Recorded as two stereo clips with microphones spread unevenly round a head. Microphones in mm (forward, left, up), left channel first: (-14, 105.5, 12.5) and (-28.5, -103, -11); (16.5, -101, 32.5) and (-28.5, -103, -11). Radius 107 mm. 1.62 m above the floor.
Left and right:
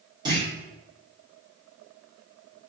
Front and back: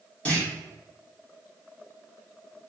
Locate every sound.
0.2 s a clunk: 20° right, 2.5 m